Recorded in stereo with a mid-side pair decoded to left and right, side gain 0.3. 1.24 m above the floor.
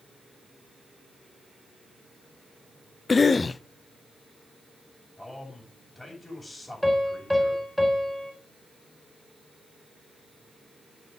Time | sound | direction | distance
3.1 | a cough | 40° left | 0.6 m
5.2 | a man speaking | 15° left | 8 m
6.8 | a piano | 5° left | 4.5 m